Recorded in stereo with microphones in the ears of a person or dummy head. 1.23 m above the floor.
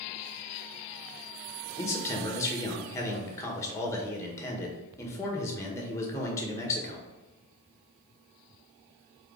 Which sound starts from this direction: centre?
A man speaking, at 1.8 s.